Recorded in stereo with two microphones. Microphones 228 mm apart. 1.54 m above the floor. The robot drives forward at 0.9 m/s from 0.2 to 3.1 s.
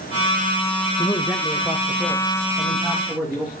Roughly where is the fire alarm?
No fire alarm in this recording.